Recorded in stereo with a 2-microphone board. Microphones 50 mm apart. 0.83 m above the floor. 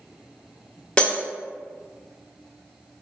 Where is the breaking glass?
20° left (ahead or behind), 0.7 m.